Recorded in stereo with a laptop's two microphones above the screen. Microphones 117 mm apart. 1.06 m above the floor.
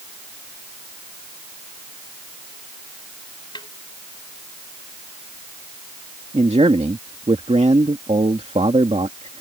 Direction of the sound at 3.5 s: 40° left (ahead or behind).